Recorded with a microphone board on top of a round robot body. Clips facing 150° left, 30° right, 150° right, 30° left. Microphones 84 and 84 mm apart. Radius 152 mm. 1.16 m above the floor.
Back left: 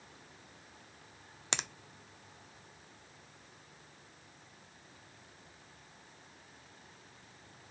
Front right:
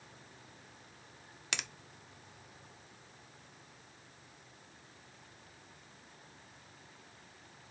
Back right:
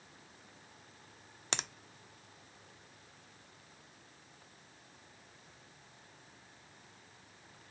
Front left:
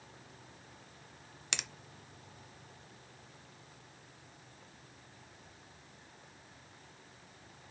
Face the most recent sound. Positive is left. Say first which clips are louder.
# back left 3 dB, back right 3 dB
turn(degrees=-175)